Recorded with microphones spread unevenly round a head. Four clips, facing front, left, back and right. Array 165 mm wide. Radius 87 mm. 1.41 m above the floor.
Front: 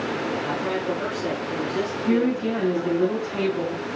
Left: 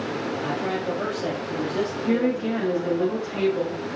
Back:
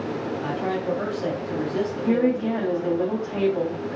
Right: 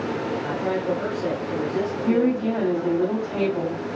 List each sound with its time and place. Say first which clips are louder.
0.4 s a man speaking: right 1 dB, even; 165° left, 2.5 m
2.0 s a woman speaking: right 3 dB, even; 130° right, 3 m